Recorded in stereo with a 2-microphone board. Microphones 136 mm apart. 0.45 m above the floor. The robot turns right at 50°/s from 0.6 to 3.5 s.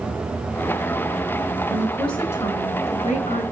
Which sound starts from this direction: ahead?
A woman speaking, at 1.7 s.